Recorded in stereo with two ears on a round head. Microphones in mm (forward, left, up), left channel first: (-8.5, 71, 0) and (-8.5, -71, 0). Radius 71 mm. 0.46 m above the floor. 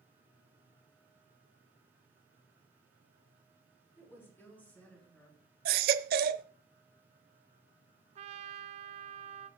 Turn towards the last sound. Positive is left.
turn(degrees=-45)  # may be behind; listen again after turning